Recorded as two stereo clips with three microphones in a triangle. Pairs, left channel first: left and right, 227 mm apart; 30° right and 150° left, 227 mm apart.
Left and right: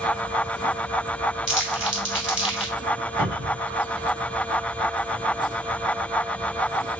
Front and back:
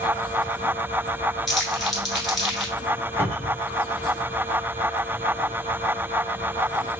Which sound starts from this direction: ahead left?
Crumpling, at 1.5 s.